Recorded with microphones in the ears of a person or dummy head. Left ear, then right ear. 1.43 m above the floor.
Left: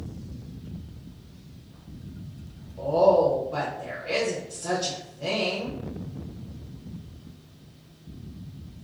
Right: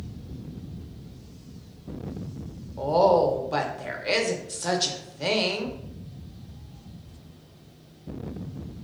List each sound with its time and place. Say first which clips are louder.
2.8 s a woman speaking: even; 60° right (ahead or behind), 0.6 m